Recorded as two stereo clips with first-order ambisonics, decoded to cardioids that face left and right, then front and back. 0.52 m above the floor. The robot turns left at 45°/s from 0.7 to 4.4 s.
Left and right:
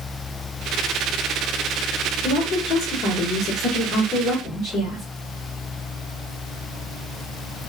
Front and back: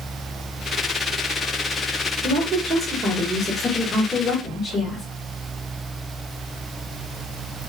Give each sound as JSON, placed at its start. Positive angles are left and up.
{"t": 2.2, "sound": "a woman speaking", "azimuth_deg": 140, "distance_m": 1.2}